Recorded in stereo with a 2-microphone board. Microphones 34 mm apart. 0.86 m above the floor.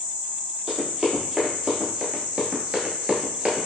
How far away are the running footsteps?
About 1.5 m.